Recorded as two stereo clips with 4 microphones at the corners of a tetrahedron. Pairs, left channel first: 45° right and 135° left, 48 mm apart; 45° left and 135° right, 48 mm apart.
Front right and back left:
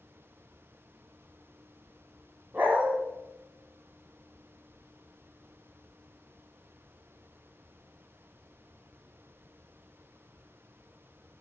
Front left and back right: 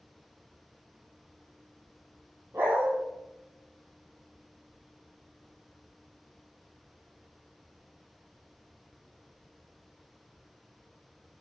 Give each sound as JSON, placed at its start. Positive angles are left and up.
{"t": 2.5, "sound": "a dog barking", "azimuth_deg": -175, "distance_m": 2.5}